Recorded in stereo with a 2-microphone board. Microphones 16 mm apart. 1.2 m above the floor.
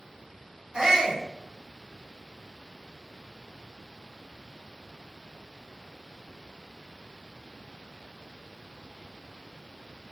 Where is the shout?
35° right (ahead or behind), 4 m.